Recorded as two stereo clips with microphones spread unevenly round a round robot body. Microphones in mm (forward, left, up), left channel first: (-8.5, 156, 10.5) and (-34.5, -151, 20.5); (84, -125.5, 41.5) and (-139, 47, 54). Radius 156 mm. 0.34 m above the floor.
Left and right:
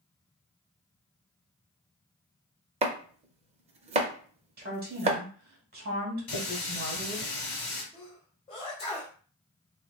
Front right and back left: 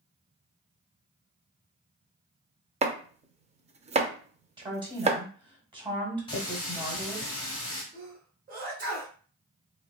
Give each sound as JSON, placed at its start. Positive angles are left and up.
{"t": 2.8, "sound": "chopping", "azimuth_deg": -155, "distance_m": 0.5}
{"t": 4.6, "sound": "a woman speaking", "azimuth_deg": -145, "distance_m": 1.5}
{"t": 6.3, "sound": "a running tap", "azimuth_deg": 35, "distance_m": 1.5}
{"t": 7.9, "sound": "a sneeze", "azimuth_deg": 130, "distance_m": 0.9}